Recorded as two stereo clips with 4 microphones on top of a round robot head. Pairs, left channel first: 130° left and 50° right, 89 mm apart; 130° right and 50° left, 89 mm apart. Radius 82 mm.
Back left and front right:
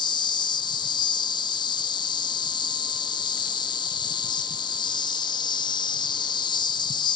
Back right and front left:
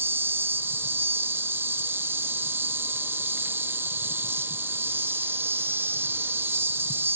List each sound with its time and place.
0.0 s an insect: 110° left, 0.8 m